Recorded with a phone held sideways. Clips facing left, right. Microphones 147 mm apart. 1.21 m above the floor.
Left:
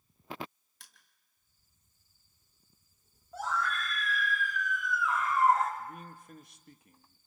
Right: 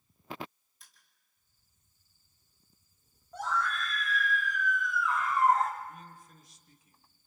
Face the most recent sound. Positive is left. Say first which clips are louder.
# left 1 dB
turn(degrees=60)  # may be behind; listen again after turning